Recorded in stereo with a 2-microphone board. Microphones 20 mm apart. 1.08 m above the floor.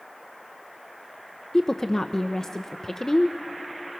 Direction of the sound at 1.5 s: 25° left (ahead or behind).